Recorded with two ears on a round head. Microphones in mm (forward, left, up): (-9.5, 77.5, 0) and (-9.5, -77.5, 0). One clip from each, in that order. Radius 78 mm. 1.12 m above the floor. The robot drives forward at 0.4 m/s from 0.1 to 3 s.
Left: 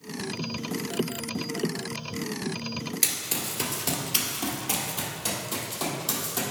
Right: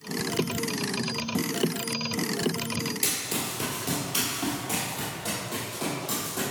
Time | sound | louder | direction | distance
3.0 | running footsteps | even | 30° left (ahead or behind) | 1.3 m